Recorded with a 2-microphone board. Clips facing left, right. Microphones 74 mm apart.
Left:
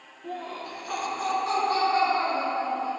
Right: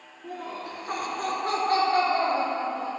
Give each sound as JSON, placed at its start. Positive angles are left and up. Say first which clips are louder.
{"t": 0.2, "sound": "laughter", "louder": "even", "side_deg": -5, "distance_m": 1.9}